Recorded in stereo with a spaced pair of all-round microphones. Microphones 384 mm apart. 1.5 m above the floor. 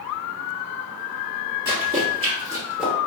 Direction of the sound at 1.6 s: 30° right (ahead or behind).